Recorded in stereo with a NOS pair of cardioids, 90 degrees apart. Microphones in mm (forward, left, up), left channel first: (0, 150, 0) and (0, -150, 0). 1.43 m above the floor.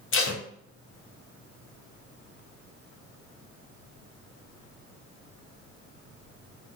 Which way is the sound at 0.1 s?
40° left.